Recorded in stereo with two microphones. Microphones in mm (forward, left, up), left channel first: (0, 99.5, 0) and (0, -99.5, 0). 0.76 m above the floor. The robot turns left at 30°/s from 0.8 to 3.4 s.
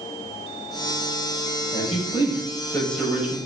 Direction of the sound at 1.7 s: 40° left.